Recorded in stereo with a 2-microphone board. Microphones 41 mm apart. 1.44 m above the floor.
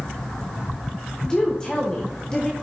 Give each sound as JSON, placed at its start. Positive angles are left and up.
{"t": 1.2, "sound": "a woman speaking", "side_deg": 15, "distance_m": 1.0}